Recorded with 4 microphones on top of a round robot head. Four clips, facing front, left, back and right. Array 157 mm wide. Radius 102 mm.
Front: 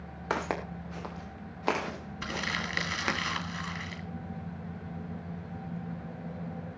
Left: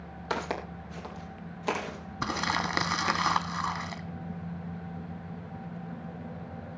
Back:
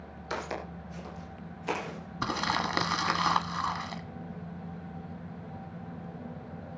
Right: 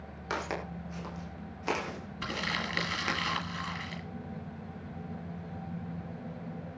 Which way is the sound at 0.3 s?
20° left.